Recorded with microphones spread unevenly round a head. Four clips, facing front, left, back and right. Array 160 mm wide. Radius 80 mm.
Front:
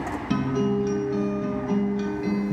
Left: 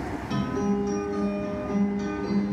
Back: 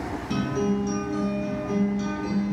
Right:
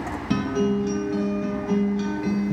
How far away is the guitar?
About 1.1 m.